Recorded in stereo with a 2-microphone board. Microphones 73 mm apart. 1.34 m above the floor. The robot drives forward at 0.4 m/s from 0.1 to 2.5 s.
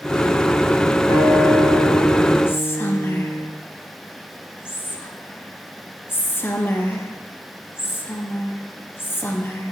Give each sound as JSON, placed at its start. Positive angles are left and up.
{"t": 1.1, "sound": "a guitar", "side_deg": 75, "distance_m": 1.3}
{"t": 2.5, "sound": "whispering", "side_deg": 30, "distance_m": 0.7}